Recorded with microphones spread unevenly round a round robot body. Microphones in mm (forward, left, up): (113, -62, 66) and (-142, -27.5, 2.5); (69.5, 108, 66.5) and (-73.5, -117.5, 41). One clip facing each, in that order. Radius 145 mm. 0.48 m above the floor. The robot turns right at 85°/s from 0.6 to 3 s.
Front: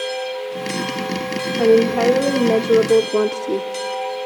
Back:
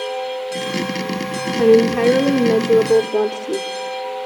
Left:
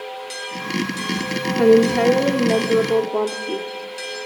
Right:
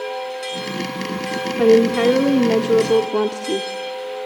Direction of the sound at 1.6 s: 145° left.